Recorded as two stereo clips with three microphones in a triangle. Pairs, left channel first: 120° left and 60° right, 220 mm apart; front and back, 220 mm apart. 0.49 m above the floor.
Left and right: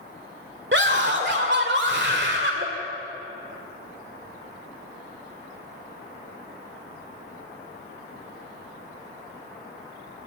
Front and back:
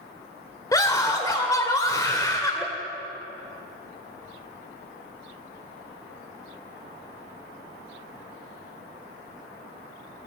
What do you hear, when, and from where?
0.7 s a scream: 70° right, 1.9 m